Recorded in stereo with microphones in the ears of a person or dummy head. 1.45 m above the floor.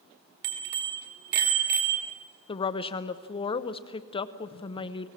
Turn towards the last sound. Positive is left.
turn(degrees=25)  # may be behind; listen again after turning